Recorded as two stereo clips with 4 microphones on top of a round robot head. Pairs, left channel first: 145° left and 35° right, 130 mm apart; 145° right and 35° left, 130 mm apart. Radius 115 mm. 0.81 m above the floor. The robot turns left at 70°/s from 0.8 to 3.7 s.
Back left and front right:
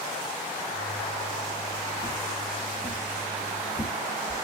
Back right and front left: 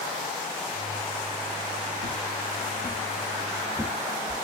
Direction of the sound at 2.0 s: 135° right.